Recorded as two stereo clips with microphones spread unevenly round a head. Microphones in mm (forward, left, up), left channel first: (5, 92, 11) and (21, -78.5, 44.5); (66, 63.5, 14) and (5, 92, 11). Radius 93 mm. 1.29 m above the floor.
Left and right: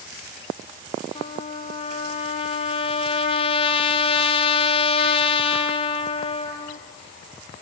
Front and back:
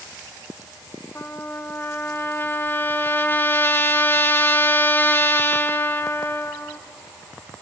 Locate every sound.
1.1 s a trumpet: 35° left, 1.6 m